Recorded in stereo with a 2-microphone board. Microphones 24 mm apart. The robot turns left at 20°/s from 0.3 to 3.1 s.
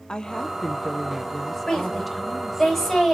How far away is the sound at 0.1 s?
About 0.7 m.